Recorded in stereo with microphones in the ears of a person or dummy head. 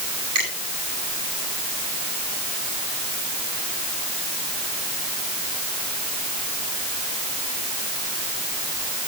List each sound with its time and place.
0.3 s a finger snap: 45° right (ahead or behind), 8.5 m